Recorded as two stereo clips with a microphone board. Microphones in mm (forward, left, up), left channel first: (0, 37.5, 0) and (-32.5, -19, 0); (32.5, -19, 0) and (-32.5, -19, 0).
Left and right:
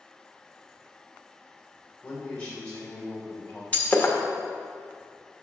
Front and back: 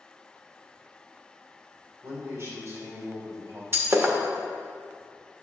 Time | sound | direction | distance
2.0 | a man speaking | 130° left | 2.5 m
3.7 | breaking glass | 130° left | 1.0 m